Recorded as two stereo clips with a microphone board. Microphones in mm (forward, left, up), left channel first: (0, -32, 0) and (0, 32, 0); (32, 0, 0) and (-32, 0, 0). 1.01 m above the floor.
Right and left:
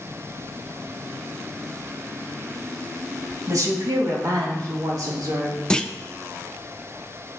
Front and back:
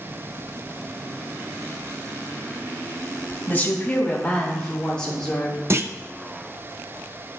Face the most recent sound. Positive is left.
turn(degrees=-160)